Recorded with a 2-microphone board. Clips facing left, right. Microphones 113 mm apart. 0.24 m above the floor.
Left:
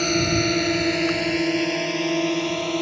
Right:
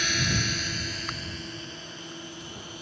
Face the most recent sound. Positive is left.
turn(degrees=75)  # may be behind; listen again after turning